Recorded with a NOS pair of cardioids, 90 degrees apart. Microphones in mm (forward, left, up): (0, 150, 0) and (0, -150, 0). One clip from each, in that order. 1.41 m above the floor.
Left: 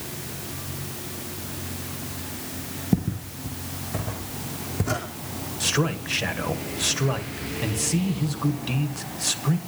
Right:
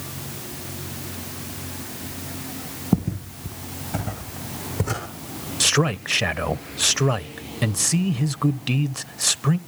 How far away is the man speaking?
About 1.1 m.